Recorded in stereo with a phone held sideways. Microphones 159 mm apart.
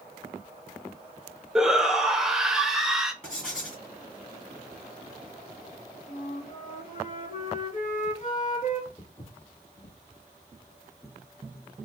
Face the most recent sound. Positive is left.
turn(degrees=30)  # may be behind; listen again after turning